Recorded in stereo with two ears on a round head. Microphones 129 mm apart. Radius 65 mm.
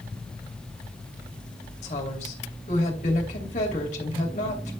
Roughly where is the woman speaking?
Left.